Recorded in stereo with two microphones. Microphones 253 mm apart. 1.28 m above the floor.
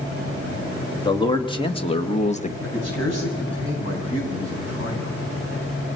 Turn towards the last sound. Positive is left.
turn(degrees=75)  # may be behind; listen again after turning